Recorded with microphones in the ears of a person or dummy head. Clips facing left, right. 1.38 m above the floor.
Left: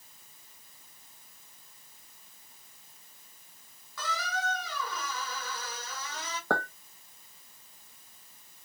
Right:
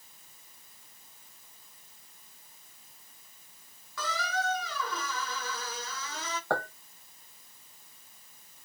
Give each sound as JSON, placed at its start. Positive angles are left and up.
{"t": 4.0, "sound": "a squeak", "side_deg": -60, "distance_m": 0.9}
{"t": 6.5, "sound": "a clink", "side_deg": 65, "distance_m": 1.1}